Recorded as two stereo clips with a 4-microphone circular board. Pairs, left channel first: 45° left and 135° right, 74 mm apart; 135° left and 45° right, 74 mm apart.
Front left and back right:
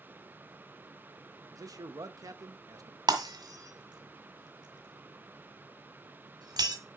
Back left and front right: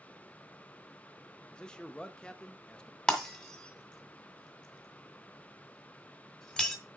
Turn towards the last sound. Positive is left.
turn(degrees=-145)